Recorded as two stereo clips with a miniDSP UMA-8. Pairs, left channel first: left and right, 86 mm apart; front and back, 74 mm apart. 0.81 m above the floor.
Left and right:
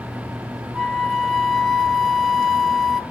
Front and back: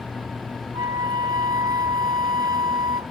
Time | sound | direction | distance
0.7 | a flute | straight behind | 0.7 m